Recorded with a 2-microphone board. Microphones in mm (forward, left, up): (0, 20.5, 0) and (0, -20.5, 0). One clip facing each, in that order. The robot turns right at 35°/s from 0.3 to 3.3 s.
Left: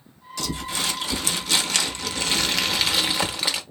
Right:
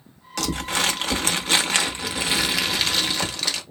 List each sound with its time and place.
0.4 s crumpling: 85° right, 0.8 m; by 3.6 s 20° left, 0.8 m